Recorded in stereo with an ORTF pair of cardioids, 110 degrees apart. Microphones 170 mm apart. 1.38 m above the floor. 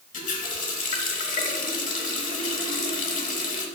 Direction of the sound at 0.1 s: 50° left.